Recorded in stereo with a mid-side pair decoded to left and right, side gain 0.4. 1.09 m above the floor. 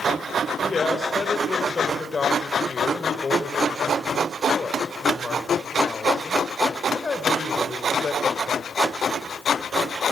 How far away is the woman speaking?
About 4.5 m.